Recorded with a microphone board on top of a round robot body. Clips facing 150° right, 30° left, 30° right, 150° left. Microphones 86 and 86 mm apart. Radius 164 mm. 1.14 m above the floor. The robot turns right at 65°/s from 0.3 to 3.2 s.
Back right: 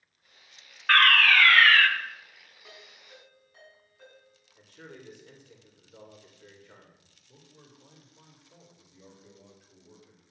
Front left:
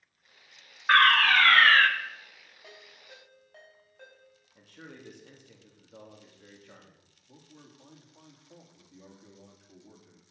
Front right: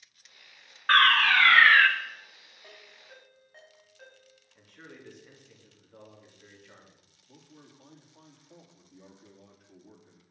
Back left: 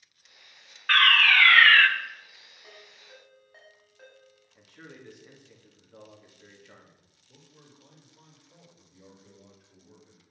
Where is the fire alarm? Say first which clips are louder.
Front left 1 dB, front right 1 dB; 25° right, 1.2 m; by 1.9 s 40° left, 1.2 m.